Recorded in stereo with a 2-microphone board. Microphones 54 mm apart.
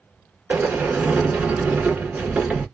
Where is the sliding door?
25° right (ahead or behind), 1.0 m.